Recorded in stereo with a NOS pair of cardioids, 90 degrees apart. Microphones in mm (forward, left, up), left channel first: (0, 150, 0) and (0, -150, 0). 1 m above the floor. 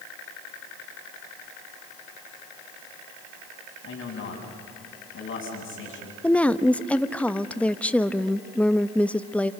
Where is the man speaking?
45° left, 7 m; by 6.1 s 40° left, 8.5 m.